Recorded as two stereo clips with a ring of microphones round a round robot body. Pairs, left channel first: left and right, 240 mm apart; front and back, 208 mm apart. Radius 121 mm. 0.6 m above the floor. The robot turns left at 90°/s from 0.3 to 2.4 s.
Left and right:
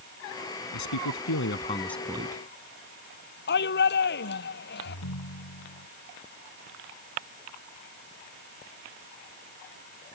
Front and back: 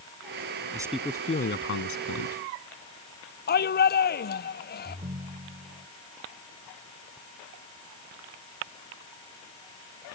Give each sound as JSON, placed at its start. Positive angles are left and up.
{"t": 0.7, "sound": "a man speaking", "azimuth_deg": 110}
{"t": 3.5, "sound": "a shout", "azimuth_deg": 40}
{"t": 4.8, "sound": "a ringtone", "azimuth_deg": 120}